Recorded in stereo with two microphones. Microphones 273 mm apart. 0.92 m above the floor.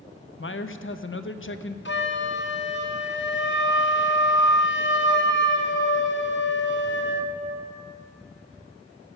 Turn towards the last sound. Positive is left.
turn(degrees=45)  # may be behind; listen again after turning